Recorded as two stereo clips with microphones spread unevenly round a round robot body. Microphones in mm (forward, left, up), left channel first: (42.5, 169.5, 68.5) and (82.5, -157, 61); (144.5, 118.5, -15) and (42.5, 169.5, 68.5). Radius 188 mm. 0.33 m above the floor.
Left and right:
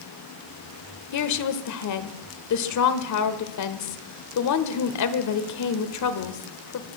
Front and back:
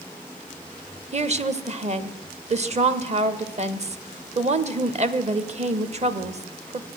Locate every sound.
1.1 s a woman speaking: 90° left, 1.4 m